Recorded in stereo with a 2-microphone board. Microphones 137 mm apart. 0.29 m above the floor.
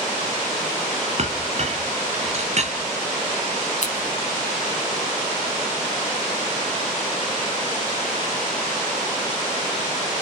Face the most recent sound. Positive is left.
turn(degrees=60)  # may be behind; listen again after turning